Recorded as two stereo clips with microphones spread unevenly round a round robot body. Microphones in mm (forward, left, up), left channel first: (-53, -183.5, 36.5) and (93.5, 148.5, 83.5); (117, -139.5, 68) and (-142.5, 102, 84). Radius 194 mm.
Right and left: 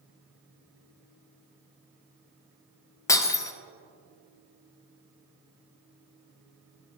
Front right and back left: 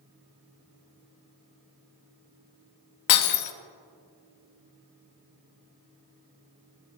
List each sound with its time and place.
3.1 s breaking glass: 35° right, 0.7 m